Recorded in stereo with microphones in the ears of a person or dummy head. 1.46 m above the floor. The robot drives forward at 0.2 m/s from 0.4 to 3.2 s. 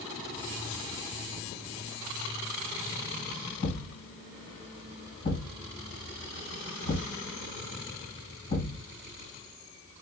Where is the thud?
35° left (ahead or behind), 1.7 m.